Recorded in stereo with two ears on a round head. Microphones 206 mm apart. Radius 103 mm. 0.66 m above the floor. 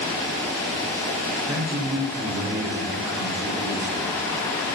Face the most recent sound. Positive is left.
turn(degrees=-70)  # may be behind; listen again after turning